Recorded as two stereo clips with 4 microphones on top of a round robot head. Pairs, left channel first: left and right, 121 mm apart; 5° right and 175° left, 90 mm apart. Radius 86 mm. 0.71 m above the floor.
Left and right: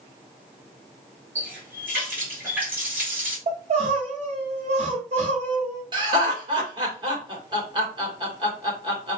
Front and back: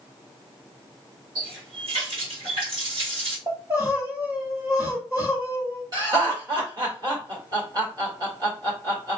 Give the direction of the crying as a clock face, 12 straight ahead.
4 o'clock.